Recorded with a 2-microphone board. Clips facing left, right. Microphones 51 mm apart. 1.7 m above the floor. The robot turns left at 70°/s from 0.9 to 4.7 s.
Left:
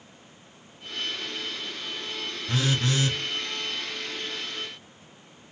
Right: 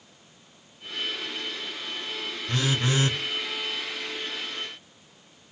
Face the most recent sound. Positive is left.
turn(degrees=-150)